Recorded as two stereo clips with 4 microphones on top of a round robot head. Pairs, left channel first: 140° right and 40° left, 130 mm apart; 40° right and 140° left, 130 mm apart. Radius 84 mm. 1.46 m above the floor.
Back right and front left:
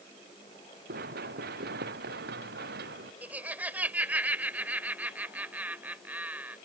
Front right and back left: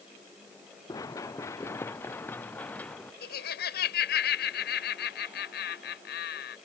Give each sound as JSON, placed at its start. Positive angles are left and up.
{"t": 0.9, "sound": "running footsteps", "azimuth_deg": 25}
{"t": 3.2, "sound": "laughter", "azimuth_deg": -40}